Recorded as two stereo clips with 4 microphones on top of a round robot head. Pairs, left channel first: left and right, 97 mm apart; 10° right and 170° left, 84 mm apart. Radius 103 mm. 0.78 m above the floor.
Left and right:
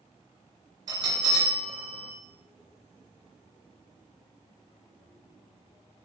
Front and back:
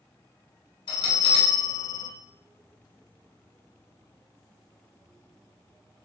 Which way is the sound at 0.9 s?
35° right.